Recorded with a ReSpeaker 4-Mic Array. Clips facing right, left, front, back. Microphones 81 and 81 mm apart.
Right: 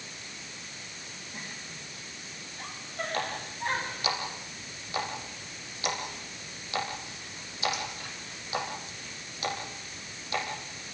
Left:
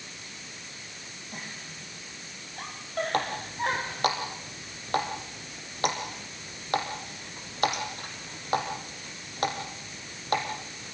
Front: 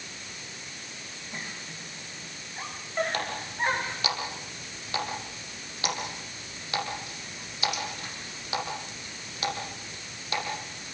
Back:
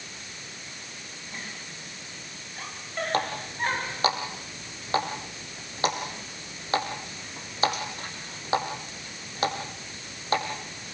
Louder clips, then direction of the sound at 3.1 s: Left 3 dB, back 3 dB; 125° left.